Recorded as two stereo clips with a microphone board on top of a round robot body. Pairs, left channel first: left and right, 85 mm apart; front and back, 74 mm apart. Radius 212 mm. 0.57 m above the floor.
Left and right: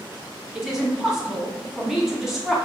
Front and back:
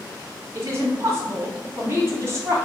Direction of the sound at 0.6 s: 175° right.